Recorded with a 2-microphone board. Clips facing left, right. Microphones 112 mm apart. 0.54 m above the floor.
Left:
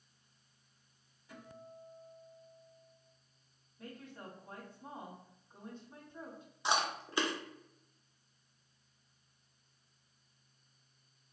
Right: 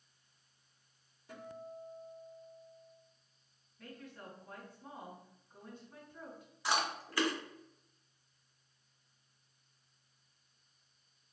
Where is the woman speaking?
25° left (ahead or behind), 1.5 m.